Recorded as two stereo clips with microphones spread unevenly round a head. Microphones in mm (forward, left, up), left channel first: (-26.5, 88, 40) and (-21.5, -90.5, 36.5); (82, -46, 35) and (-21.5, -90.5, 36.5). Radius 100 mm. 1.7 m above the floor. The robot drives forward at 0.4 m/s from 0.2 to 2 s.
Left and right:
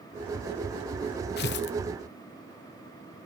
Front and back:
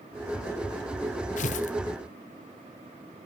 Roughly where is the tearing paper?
Ahead left.